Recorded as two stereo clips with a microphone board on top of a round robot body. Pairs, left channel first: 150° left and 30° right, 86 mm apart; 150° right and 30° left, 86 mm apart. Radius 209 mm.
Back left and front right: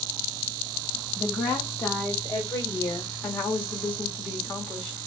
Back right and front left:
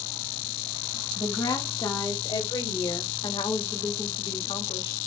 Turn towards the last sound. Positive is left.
turn(degrees=-140)